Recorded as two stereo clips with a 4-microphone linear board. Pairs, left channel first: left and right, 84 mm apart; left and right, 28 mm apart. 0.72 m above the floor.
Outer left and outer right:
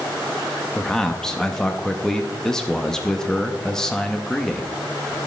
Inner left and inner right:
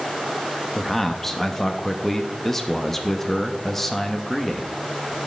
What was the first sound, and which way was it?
A man speaking, 5° left (ahead or behind).